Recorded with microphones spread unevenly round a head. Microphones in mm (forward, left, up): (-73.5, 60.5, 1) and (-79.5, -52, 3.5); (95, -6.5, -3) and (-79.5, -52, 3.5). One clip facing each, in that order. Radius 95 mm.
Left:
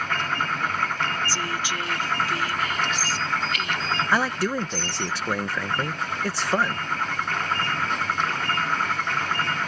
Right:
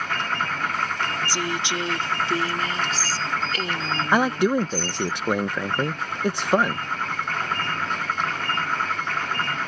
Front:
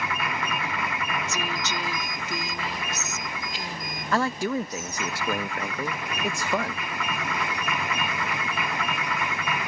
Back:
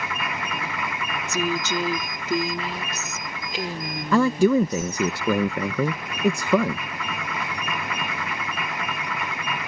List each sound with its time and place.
1.3 s a woman speaking: 165° right; by 5.1 s 140° right
4.1 s a man speaking: 165° right